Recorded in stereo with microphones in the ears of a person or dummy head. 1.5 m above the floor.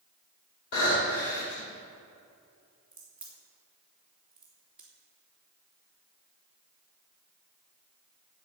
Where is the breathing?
60° left (ahead or behind), 5.5 m.